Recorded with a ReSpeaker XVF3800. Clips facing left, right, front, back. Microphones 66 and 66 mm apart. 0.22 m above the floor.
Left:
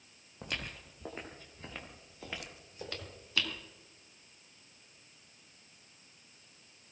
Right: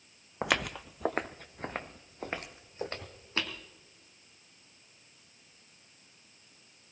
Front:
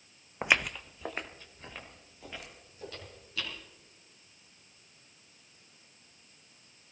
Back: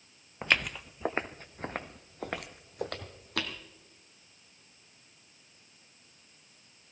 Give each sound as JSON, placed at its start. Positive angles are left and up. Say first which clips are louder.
{"t": 0.4, "sound": "footsteps", "louder": "right 11 dB, front 1 dB", "azimuth_deg": -70, "distance_m": 0.6}